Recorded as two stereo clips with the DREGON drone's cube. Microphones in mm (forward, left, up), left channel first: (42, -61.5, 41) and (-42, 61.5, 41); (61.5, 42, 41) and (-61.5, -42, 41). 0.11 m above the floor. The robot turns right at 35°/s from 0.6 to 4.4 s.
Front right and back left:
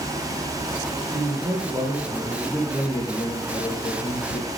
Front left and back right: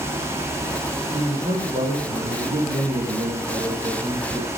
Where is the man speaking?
165° left, 3 m; by 4.5 s 80° right, 3 m.